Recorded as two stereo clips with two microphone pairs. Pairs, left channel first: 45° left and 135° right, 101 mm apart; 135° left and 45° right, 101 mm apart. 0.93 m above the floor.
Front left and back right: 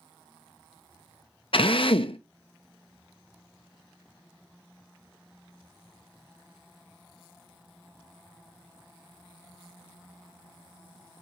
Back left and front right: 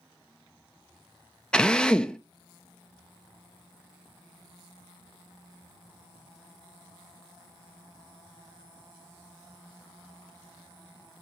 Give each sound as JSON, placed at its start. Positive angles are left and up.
{"t": 1.5, "sound": "a drill", "azimuth_deg": 55, "distance_m": 0.9}